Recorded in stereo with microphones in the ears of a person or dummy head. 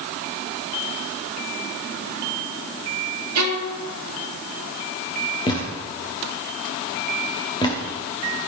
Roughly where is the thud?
Left.